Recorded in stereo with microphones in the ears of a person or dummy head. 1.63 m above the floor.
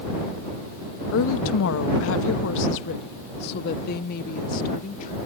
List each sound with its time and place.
1.1 s a woman speaking: 70° left (ahead or behind); by 5.2 s 45° left (ahead or behind)